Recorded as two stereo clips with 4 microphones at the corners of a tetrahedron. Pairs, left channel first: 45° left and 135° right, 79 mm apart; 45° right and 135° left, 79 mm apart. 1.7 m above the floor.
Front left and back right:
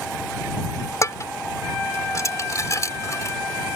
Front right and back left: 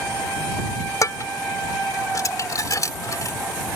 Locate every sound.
1.0 s dishes clattering: straight ahead